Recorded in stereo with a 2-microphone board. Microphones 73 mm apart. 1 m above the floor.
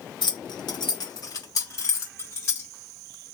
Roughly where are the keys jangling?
Left.